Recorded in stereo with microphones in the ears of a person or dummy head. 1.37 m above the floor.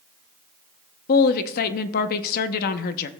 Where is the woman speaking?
50° left (ahead or behind), 0.8 m.